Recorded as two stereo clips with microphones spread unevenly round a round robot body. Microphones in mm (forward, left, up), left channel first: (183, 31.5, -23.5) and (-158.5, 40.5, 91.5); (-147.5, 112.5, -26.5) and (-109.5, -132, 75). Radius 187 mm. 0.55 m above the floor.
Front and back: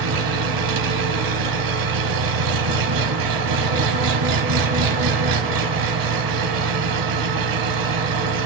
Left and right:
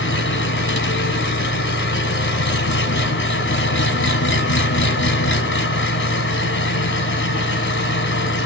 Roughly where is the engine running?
Behind left.